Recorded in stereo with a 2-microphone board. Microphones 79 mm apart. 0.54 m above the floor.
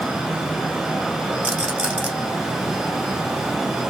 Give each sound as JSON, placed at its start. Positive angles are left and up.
{"t": 1.4, "sound": "a rattle", "side_deg": -15, "distance_m": 1.4}